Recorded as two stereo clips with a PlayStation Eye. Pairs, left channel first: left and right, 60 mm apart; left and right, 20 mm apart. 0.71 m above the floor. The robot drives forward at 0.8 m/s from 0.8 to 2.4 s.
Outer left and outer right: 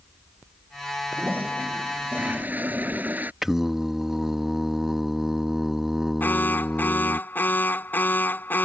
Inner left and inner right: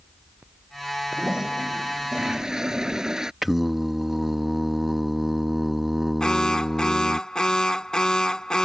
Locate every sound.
1.1 s a toilet flushing: 30° right (ahead or behind); by 3.3 s 25° right (ahead or behind)
3.4 s singing: 5° right (ahead or behind)
6.2 s an alarm: 30° left (ahead or behind)